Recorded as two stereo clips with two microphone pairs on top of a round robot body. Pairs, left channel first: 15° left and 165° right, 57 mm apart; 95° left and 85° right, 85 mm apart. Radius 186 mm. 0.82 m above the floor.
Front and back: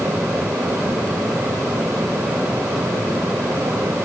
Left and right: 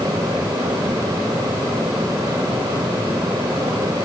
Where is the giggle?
I don't hear a giggle.